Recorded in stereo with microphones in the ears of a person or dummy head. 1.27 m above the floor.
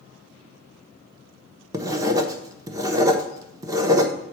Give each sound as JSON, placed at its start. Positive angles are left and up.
{"t": 1.7, "sound": "writing", "side_deg": -25, "distance_m": 0.9}